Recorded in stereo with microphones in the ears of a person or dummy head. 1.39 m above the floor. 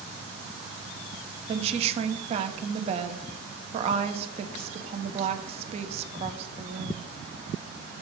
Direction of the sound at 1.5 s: 35° right (ahead or behind).